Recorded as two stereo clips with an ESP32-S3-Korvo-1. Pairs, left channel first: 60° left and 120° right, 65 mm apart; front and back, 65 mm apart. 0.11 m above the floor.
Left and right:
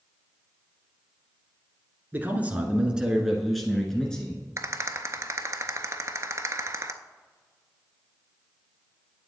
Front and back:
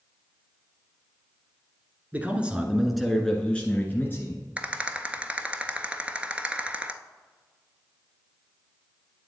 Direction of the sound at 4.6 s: 115° right.